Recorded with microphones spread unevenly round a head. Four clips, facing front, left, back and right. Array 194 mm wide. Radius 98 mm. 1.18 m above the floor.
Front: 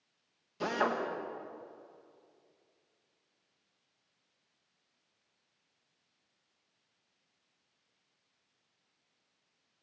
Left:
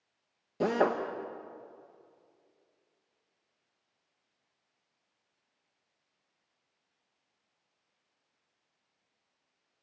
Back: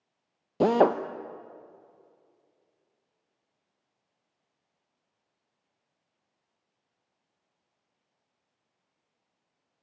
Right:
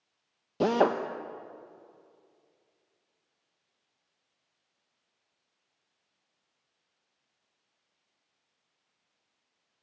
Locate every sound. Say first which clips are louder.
0.6 s a drill: right 3 dB, back 11 dB; 165° right, 1.0 m